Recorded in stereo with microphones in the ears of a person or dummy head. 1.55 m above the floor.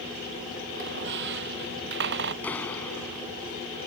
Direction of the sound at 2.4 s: 15° left (ahead or behind).